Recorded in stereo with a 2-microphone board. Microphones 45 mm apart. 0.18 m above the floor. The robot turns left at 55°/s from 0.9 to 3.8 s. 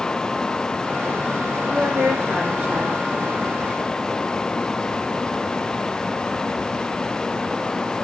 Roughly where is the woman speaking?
Right.